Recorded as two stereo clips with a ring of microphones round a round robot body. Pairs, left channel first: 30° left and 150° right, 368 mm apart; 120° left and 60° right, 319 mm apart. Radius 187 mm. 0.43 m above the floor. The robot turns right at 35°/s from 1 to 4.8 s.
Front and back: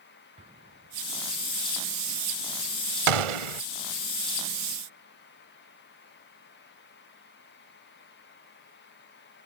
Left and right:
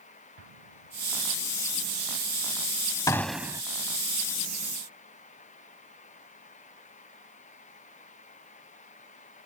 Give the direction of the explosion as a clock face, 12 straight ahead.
2 o'clock.